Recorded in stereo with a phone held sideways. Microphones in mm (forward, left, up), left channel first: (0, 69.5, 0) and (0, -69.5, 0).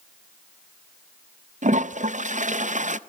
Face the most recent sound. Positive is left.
turn(degrees=-60)  # may be behind; listen again after turning